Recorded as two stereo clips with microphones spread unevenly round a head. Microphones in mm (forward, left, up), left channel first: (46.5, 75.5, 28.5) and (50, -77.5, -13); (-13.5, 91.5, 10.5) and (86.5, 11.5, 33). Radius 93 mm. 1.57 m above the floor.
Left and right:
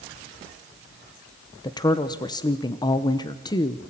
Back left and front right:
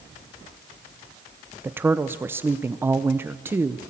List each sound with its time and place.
1.6 s a woman speaking: 30° left, 0.9 m